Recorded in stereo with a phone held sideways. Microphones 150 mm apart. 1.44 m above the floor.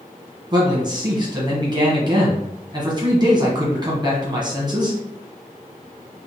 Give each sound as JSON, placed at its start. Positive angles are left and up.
{"t": 0.5, "sound": "a man speaking", "side_deg": -30, "distance_m": 1.1}